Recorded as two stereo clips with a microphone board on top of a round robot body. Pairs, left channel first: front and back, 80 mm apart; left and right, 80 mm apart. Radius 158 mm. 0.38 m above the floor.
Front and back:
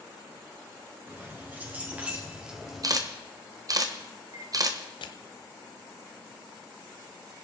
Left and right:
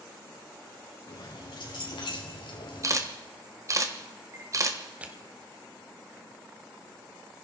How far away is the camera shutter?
About 1.5 m.